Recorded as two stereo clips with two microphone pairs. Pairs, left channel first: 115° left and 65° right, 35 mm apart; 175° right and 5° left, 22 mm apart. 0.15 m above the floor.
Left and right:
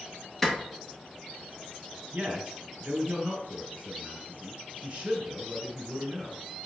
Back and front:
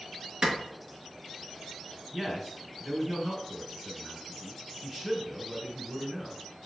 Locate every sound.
0.4 s a clap: 40° left, 2.5 m
2.1 s a man speaking: 80° right, 2 m